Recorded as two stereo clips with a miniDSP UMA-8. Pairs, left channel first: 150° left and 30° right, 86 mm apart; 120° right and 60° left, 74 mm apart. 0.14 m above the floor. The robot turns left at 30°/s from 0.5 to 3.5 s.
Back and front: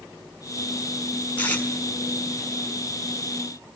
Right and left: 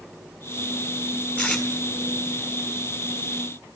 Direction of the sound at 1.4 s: 160° right.